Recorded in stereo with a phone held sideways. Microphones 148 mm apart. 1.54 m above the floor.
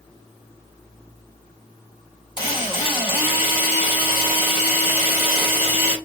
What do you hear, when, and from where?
2.4 s a drill: 35° left (ahead or behind), 1.9 m